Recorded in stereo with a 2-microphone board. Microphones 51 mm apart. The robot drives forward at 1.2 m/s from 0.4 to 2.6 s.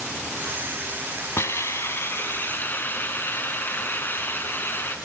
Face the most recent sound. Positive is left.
turn(degrees=40)  # may be behind; listen again after turning